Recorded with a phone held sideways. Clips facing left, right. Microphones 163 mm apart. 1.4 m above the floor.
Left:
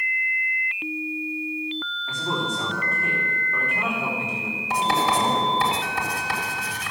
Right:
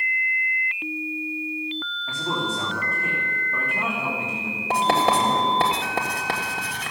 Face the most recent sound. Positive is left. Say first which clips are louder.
# right 2 dB
turn(degrees=-65)  # may be behind; listen again after turning